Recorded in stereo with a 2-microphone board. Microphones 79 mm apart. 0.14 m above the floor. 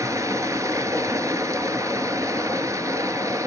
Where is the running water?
40° right (ahead or behind), 1.2 m.